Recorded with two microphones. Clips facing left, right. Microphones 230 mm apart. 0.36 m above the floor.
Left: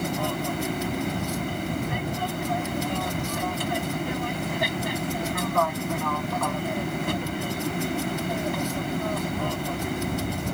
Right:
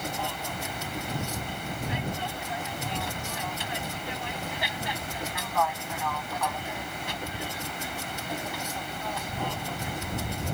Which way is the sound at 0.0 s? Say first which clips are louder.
Left 8 dB; 55° left (ahead or behind).